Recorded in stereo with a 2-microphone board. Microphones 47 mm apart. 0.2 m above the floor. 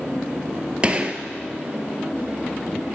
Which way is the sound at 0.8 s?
25° right (ahead or behind).